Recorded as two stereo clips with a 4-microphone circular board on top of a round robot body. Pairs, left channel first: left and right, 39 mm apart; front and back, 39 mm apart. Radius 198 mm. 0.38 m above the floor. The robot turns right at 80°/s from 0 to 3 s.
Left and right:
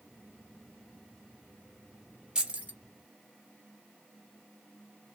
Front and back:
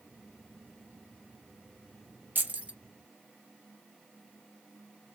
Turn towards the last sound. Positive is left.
turn(degrees=-105)